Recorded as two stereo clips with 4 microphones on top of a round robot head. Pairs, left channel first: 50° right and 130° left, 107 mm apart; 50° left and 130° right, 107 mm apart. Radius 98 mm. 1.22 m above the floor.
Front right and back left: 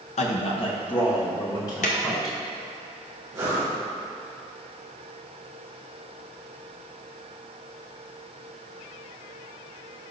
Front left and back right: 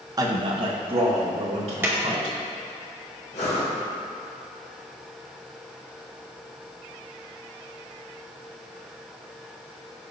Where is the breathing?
65° left, 1.6 m.